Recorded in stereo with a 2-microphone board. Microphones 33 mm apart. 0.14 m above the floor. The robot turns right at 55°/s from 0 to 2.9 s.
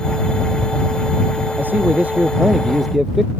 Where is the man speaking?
80° right; by 3.3 s 5° right.